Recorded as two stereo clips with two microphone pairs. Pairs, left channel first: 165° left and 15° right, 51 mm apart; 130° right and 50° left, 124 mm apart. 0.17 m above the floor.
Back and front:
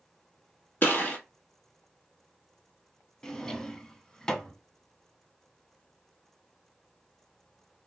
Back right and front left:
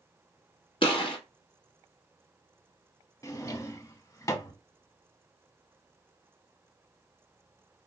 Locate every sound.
0.8 s a gunshot: 155° right, 1.3 m
3.2 s a drawer: 140° right, 0.5 m